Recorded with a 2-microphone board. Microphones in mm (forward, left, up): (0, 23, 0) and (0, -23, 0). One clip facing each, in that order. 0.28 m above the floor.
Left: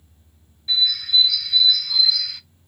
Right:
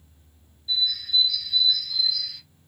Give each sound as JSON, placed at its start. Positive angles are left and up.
{"t": 0.7, "sound": "a bird", "side_deg": 80, "distance_m": 0.5}